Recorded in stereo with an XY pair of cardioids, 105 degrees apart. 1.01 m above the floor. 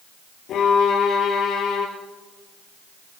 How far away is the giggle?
No giggle in this recording.